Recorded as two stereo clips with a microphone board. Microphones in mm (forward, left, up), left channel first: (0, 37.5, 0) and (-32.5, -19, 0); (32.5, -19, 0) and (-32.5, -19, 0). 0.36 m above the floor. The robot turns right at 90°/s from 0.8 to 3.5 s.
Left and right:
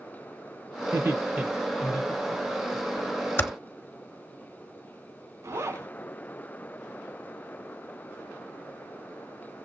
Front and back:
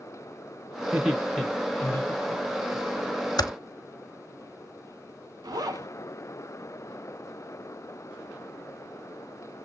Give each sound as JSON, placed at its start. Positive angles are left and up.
{"t": 0.9, "sound": "laughter", "azimuth_deg": -110, "distance_m": 1.3}
{"t": 3.4, "sound": "typing on a keyboard", "azimuth_deg": 5, "distance_m": 0.8}
{"t": 5.4, "sound": "a zipper", "azimuth_deg": -165, "distance_m": 1.0}